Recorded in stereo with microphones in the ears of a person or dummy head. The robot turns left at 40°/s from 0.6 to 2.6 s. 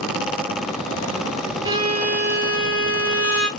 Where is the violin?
20° right, 1.4 m; by 3.5 s 60° right, 1.4 m.